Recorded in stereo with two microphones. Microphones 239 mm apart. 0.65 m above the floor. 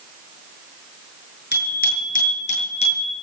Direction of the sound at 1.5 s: 40° left (ahead or behind).